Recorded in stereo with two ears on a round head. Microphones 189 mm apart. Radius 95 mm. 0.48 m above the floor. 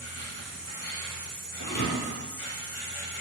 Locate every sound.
0.0 s an insect: 70° left (ahead or behind), 1.7 m
1.6 s a thud: 45° left (ahead or behind), 1.1 m